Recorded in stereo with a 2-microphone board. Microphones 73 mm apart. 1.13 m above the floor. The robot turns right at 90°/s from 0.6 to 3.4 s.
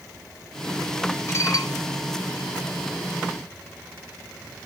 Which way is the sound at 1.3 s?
35° left.